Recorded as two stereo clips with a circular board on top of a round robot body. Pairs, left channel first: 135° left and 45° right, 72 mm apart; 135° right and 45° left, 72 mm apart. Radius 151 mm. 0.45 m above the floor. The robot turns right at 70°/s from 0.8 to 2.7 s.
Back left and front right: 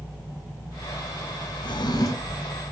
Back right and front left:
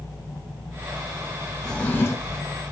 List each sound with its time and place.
1.6 s a drawer: 135° left, 1.1 m; by 2.4 s 170° right, 1.1 m